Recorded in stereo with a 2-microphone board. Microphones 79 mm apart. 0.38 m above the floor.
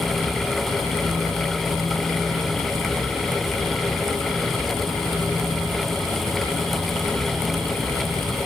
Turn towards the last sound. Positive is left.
No sound to turn to.